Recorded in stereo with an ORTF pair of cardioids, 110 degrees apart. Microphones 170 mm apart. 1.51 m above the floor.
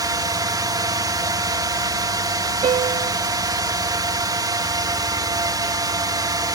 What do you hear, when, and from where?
0.0 s a drone: 25° right
2.6 s a piano: 50° right